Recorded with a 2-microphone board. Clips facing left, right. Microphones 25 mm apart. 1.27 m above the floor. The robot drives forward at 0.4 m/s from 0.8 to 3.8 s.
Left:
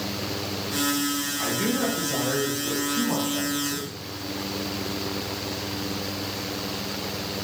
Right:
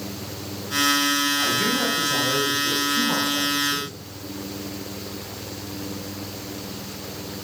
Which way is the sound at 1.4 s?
10° right (ahead or behind).